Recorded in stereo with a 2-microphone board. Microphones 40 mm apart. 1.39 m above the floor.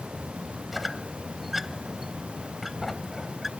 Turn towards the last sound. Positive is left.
turn(degrees=-5)  # may be behind; listen again after turning